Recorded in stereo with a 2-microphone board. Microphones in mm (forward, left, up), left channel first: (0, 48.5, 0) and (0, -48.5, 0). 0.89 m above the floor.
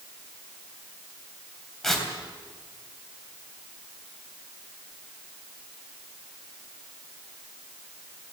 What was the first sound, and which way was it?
Tearing paper, 5° left (ahead or behind).